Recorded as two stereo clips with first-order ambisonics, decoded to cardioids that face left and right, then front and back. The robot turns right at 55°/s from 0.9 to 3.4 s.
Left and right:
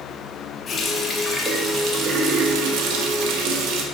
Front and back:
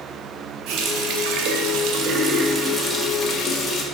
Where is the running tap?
160° left, 0.8 m; by 3.8 s 65° right, 0.8 m.